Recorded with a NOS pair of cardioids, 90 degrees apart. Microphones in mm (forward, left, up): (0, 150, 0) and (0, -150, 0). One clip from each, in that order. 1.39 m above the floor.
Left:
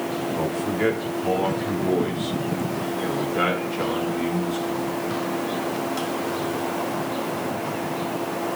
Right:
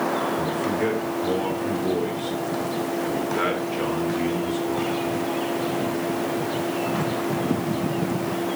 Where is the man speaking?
35° left, 3 m; by 5.0 s 5° left, 5 m.